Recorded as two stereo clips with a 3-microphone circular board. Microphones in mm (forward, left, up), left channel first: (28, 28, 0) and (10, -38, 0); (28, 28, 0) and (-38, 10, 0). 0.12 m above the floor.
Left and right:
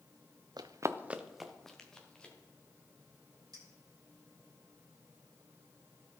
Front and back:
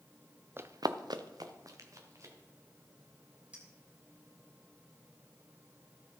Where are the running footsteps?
110° right, 0.7 m; by 2.3 s 150° left, 2.5 m.